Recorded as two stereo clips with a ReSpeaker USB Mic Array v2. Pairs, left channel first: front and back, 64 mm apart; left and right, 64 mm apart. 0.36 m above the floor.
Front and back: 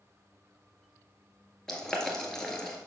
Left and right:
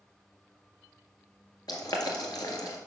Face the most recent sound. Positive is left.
turn(degrees=80)